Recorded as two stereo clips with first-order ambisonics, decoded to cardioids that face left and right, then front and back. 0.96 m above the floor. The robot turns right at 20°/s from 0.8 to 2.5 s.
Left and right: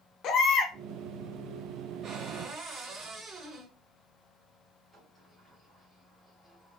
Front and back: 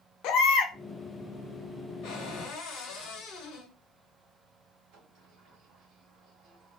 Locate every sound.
0.2 s a baby crying: 40° left, 0.6 m
2.0 s a cupboard door: 35° right, 1.6 m; by 3.7 s 25° right, 1.6 m
4.9 s a sliding door: straight behind, 1.9 m